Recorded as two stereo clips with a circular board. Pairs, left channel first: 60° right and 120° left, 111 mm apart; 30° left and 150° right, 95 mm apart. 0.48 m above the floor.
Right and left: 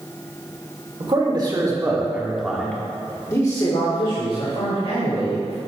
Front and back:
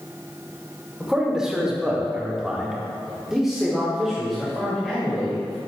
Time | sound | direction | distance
1.0 | a man speaking | 130° left | 1.9 m